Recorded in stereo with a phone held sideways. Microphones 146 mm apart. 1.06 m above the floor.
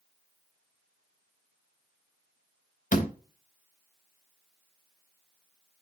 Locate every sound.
2.9 s a door slam: 60° left (ahead or behind), 1.2 m